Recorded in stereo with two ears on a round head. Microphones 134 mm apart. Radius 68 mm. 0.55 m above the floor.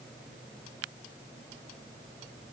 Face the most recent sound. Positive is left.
No sound to turn to.